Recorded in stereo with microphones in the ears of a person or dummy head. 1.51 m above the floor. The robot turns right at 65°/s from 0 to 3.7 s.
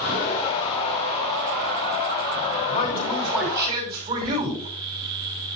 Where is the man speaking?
150° left, 5.5 m; by 4.7 s 145° right, 5.5 m.